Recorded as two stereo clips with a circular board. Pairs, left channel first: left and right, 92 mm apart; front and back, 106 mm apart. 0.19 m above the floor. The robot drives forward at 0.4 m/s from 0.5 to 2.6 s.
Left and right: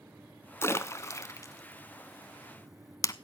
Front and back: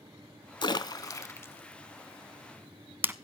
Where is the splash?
35° left, 0.8 m; by 3.1 s 115° left, 0.6 m.